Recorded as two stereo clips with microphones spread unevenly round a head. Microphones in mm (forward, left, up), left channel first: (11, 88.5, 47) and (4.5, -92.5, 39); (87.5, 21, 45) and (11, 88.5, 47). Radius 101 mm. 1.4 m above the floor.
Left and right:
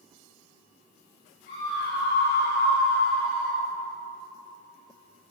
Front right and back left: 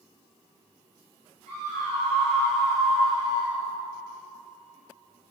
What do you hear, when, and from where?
1.5 s a scream: 130° left, 5.5 m; by 3.6 s 120° left, 7 m